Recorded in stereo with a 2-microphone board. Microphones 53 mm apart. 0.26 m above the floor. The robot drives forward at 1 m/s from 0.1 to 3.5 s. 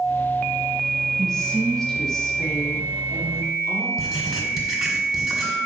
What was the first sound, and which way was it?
A woman speaking, 15° left (ahead or behind).